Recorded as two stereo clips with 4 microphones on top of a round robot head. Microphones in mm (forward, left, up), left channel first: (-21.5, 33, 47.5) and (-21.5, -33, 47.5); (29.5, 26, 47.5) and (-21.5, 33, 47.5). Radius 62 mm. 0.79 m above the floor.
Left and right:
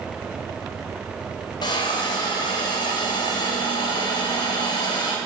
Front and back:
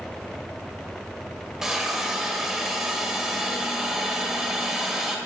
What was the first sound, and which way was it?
A hiss, 95° left.